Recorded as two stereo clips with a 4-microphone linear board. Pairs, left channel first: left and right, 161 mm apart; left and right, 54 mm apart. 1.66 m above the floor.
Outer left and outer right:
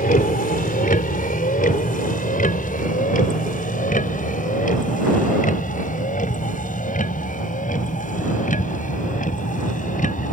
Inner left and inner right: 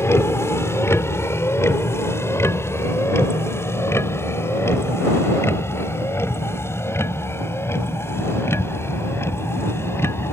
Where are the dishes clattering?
No dishes clattering in this recording.